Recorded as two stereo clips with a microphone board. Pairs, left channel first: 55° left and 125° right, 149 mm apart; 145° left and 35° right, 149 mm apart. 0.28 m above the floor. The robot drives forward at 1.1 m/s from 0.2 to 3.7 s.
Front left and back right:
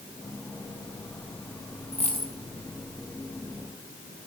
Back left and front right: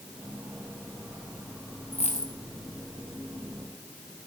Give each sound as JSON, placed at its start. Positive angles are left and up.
{"t": 1.9, "sound": "a dropped coin", "azimuth_deg": 100, "distance_m": 2.5}